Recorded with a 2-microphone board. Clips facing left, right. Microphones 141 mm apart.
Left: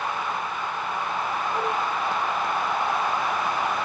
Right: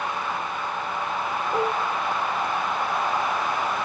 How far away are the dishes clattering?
About 2.5 m.